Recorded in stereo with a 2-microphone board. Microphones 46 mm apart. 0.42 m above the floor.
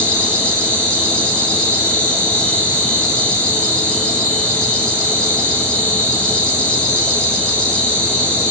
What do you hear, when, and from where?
0.0 s an insect: 20° left (ahead or behind), 7 m